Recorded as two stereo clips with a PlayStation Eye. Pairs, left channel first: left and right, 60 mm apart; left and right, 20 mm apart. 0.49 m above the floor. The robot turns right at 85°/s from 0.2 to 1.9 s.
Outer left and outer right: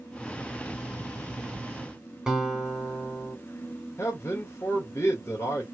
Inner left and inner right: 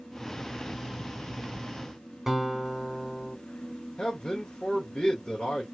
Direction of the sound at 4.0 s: 45° left (ahead or behind).